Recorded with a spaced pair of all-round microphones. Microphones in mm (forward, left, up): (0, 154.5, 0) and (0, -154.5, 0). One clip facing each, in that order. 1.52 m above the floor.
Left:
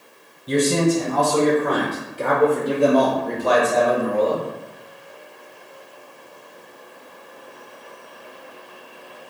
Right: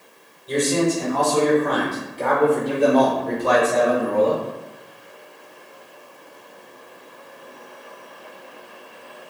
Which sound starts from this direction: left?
A man speaking, at 0.5 s.